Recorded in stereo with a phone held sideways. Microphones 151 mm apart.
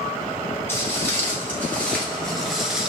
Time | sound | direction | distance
0.7 | footsteps | 15° left (ahead or behind) | 1.7 m